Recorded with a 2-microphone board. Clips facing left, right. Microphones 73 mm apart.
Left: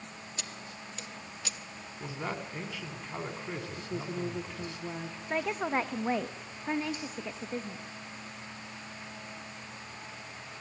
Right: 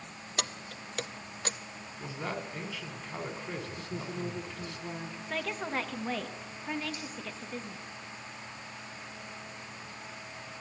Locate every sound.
0.4 s keys jangling: 65° right (ahead or behind), 0.8 m; by 1.6 s 40° right (ahead or behind), 0.8 m
2.0 s a man speaking: 10° left (ahead or behind), 2 m
3.8 s a woman speaking: 10° left (ahead or behind), 1.5 m
5.3 s a woman speaking: 20° left (ahead or behind), 1.0 m